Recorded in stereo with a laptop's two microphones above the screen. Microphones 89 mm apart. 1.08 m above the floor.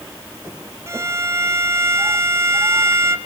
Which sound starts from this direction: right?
A violin, at 0.9 s.